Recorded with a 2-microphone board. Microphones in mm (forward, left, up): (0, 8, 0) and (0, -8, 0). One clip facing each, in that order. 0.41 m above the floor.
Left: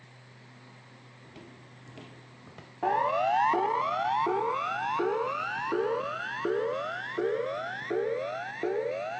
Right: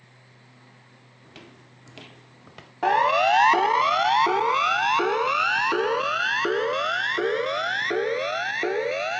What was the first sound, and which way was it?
Footsteps, 40° right (ahead or behind).